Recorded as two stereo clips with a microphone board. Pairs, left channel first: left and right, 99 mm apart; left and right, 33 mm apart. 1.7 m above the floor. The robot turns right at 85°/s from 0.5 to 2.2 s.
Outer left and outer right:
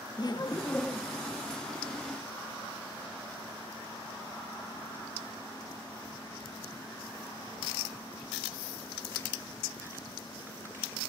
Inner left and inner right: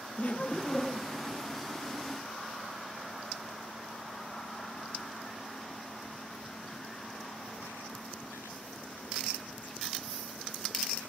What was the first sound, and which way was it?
Laughter, 135° left.